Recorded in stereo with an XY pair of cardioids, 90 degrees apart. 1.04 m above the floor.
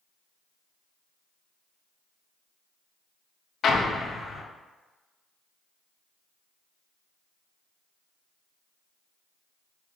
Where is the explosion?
60° left, 0.5 m.